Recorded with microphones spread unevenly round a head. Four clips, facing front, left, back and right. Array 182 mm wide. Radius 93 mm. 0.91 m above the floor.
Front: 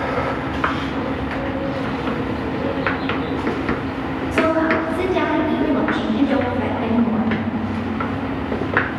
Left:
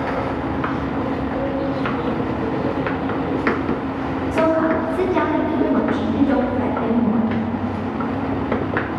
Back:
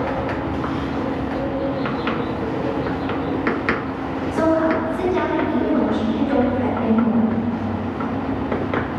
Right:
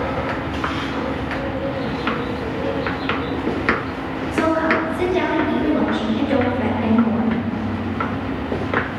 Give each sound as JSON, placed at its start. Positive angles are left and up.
{"t": 4.3, "sound": "a woman speaking", "azimuth_deg": 75, "distance_m": 10.0}